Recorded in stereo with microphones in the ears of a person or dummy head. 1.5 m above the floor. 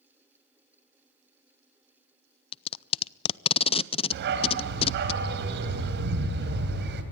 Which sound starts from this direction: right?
A dog barking, at 4.1 s.